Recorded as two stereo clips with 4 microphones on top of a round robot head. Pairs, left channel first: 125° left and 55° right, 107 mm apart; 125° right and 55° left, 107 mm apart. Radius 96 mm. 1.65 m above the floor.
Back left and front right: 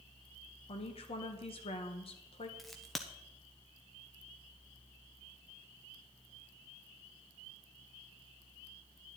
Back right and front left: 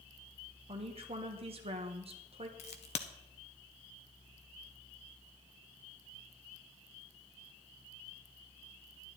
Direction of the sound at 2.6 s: 145° right.